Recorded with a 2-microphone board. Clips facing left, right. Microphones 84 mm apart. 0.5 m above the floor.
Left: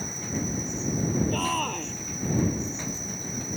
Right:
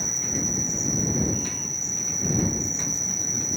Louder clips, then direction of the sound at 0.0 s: Even; 25° left (ahead or behind).